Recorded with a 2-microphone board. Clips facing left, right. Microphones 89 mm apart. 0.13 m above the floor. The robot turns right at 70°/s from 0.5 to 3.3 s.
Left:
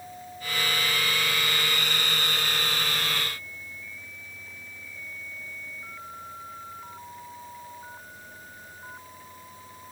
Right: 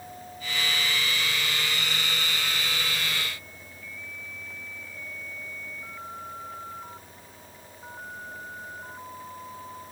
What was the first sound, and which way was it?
Only background noise.